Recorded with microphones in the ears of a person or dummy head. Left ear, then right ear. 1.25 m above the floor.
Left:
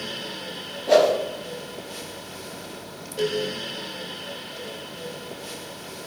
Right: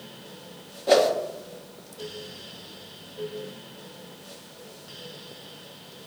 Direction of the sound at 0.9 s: 35° right (ahead or behind).